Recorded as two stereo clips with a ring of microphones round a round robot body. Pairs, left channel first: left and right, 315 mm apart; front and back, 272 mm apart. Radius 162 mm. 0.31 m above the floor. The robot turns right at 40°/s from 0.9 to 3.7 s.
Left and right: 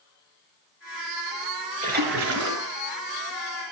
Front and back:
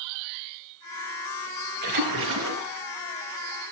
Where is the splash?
160° right, 3.5 m; by 2.7 s 125° right, 3.5 m.